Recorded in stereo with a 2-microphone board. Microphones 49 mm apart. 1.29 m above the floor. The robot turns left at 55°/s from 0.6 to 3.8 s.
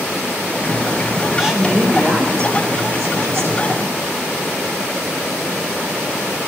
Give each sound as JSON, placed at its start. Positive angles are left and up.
{"t": 1.4, "sound": "a woman speaking", "azimuth_deg": -10, "distance_m": 5.0}